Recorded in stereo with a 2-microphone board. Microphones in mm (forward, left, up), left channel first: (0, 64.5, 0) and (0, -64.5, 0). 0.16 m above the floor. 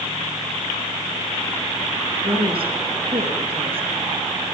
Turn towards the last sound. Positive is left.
turn(degrees=-45)  # may be behind; listen again after turning